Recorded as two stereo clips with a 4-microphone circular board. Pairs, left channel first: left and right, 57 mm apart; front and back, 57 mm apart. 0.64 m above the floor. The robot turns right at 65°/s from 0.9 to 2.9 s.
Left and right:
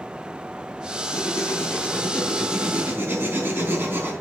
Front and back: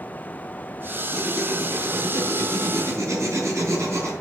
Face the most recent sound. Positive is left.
turn(degrees=-145)